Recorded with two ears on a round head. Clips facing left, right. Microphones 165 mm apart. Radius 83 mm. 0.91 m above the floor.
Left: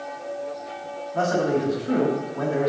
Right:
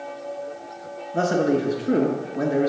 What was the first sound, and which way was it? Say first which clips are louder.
A man speaking: right 2 dB; 40° right (ahead or behind).